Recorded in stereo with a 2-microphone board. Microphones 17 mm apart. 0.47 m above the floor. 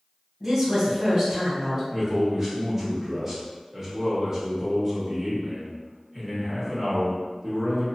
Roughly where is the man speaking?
Right.